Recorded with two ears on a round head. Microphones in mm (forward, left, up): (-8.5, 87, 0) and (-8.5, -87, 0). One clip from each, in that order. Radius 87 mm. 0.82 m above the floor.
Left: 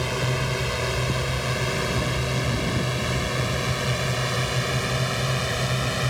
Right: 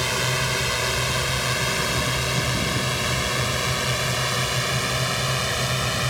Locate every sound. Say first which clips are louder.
0.0 s a drone: right 3 dB; 40° right (ahead or behind); by 6.1 s 25° right (ahead or behind)